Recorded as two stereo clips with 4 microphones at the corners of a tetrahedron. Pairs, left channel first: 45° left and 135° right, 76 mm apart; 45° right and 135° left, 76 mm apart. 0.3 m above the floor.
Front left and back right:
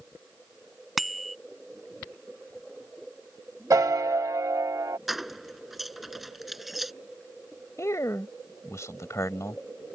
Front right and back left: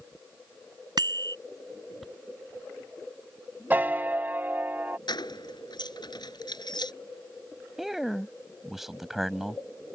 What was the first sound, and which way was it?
A bicycle bell, 135° left.